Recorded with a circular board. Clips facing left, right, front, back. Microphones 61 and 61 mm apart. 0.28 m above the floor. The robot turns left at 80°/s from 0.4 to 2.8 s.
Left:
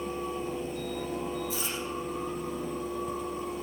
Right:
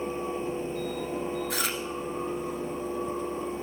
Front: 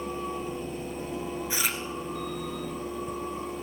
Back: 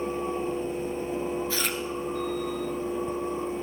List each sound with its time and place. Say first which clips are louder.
1.5 s chewing: right 4 dB, back 1 dB; 70° right, 1.2 m; by 1.8 s 95° right, 1.2 m